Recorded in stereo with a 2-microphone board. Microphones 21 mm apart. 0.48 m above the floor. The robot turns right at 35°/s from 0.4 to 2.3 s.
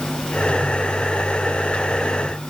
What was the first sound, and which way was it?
Only background noise.